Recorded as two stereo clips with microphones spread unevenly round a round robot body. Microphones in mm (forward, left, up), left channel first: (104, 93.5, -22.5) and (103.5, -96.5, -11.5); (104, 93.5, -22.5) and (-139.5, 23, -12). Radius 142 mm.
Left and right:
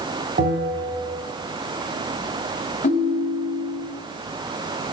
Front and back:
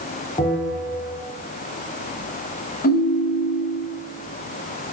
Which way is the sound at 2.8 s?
55° left.